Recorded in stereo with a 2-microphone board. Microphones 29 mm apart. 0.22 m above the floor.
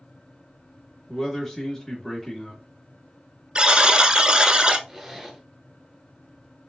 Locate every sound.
1.1 s a man speaking: 10° left (ahead or behind), 0.9 m
3.5 s a buzzer: 30° right (ahead or behind), 0.5 m
4.9 s a zipper: centre (ahead or behind), 1.2 m